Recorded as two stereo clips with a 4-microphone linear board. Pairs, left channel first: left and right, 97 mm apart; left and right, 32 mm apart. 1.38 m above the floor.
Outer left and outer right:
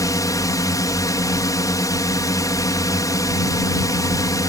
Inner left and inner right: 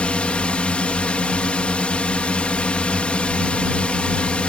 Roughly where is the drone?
Left.